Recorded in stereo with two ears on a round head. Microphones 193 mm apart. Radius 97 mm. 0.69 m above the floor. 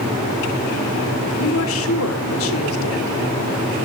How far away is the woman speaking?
About 2 m.